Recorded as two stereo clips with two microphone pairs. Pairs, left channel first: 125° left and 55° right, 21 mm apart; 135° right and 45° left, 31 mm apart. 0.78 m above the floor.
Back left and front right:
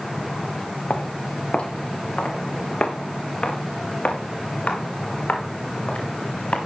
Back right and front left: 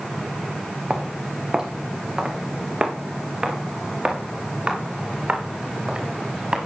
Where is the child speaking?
No child speaking in this recording.